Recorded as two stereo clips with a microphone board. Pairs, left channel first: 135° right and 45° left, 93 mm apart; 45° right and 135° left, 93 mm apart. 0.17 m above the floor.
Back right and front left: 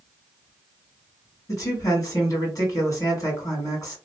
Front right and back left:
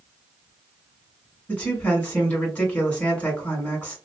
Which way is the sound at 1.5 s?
110° right.